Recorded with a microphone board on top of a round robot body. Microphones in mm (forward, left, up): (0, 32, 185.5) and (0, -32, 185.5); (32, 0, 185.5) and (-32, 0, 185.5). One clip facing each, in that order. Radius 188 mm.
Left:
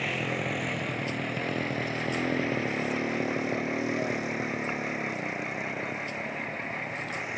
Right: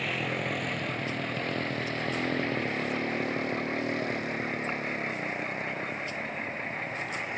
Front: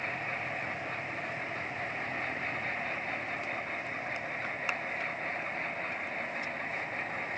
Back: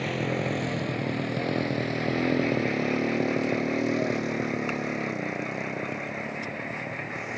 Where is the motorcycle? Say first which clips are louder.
Left 1 dB, back 7 dB; 175° left; by 7.4 s 170° left.